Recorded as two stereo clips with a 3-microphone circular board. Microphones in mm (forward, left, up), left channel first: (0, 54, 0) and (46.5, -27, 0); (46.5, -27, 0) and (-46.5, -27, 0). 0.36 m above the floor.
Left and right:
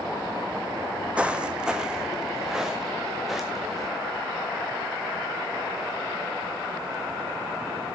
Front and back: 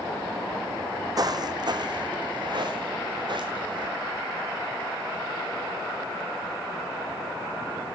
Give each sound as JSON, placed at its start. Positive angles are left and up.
{"t": 1.2, "sound": "footsteps", "azimuth_deg": -135, "distance_m": 0.8}